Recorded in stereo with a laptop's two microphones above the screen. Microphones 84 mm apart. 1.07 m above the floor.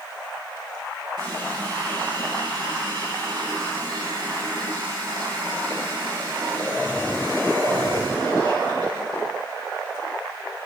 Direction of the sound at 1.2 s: 55° right (ahead or behind).